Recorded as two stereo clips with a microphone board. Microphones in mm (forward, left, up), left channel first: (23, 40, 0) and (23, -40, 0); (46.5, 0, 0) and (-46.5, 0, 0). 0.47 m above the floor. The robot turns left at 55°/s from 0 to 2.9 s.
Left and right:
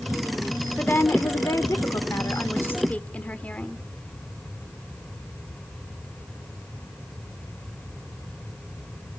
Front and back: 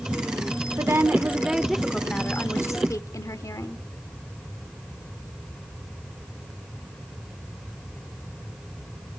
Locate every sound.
0.8 s a woman speaking: 145° left, 1.0 m; by 3.8 s 30° left, 1.0 m